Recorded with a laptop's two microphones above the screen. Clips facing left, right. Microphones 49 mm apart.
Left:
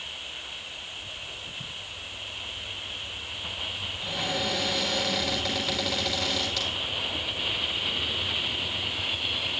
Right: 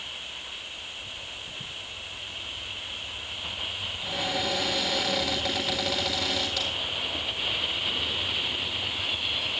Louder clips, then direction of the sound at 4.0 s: Even; 5° right (ahead or behind).